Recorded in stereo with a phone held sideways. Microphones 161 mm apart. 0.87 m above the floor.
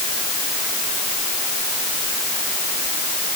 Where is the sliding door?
I don't hear a sliding door.